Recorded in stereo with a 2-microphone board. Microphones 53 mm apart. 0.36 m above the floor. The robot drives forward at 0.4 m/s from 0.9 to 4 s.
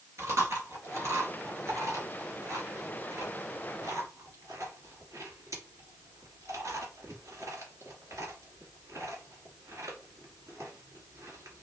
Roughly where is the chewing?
Right.